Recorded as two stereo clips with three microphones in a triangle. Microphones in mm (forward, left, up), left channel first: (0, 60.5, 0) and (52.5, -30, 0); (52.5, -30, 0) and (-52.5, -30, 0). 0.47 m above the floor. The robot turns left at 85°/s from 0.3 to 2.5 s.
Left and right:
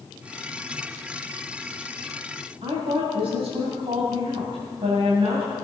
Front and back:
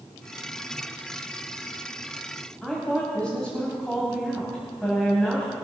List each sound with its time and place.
2.6 s a woman speaking: 80° right, 2.5 m